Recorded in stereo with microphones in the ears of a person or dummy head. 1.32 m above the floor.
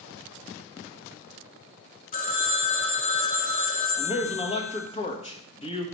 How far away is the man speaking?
About 1.3 m.